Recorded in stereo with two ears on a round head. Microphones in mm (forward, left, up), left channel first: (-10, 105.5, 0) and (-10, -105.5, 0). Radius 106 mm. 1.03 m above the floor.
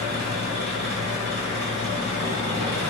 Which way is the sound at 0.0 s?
45° right (ahead or behind).